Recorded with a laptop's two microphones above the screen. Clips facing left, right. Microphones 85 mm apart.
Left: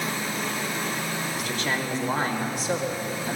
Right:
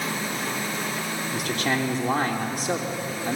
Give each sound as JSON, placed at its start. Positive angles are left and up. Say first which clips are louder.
{"t": 1.3, "sound": "a man speaking", "louder": "right 5 dB", "side_deg": -55, "distance_m": 3.0}